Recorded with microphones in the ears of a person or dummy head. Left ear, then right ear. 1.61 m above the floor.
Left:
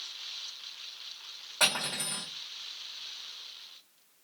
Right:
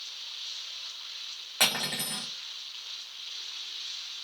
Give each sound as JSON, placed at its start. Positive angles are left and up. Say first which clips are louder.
{"t": 1.6, "sound": "cutlery clinking", "louder": "right 1 dB", "side_deg": -45, "distance_m": 1.0}